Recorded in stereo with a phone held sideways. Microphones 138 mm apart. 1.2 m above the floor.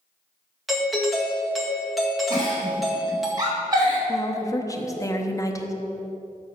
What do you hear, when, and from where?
0.7 s a doorbell: centre (ahead or behind), 1.7 m
2.3 s a giggle: 30° right (ahead or behind), 3 m
4.1 s a woman speaking: 20° left (ahead or behind), 0.8 m